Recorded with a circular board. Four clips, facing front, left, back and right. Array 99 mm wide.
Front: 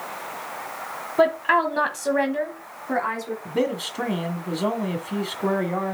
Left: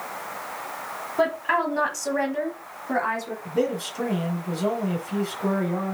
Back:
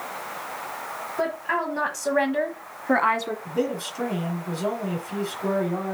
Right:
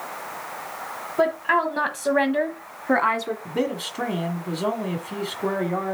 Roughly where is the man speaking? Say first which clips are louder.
Left 4 dB, front 4 dB; ahead right.